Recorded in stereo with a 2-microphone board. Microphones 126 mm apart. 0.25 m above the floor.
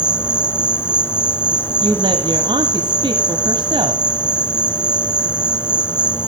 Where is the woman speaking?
40° right (ahead or behind), 1.2 m.